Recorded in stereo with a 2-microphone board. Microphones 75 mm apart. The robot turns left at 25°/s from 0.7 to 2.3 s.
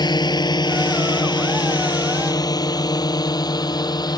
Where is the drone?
70° left (ahead or behind); by 4.2 s 65° left (ahead or behind).